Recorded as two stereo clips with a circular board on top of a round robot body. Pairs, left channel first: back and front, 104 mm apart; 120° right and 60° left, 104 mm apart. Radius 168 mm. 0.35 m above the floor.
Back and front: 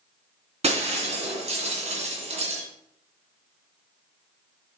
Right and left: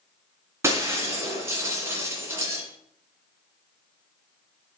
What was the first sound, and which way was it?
Breaking glass, 5° right.